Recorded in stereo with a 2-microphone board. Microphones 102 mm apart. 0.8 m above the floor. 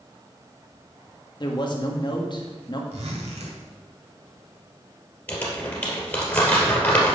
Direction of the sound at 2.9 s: 85° right.